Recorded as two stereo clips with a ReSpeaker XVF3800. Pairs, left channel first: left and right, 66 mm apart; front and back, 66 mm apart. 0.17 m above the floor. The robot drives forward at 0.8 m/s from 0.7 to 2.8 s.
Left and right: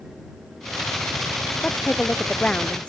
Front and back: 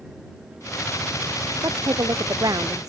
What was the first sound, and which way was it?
A woman speaking, 160° left.